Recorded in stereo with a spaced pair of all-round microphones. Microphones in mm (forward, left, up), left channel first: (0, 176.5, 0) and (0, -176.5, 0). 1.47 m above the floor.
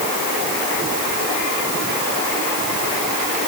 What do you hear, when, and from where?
Only background noise.